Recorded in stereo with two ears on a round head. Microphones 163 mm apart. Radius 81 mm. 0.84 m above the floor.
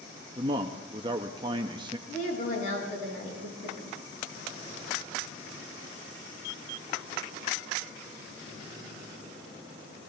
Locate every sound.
0.4 s a man speaking: 25° right (ahead or behind), 0.7 m
2.1 s a woman speaking: 50° left (ahead or behind), 7 m